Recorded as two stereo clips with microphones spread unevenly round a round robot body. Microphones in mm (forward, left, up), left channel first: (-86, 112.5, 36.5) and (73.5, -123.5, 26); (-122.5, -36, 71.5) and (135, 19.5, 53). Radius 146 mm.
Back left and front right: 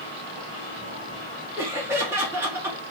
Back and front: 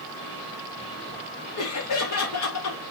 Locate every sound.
1.6 s laughter: 140° right, 1.9 m